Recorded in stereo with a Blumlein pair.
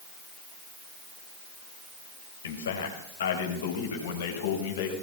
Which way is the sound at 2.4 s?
65° left.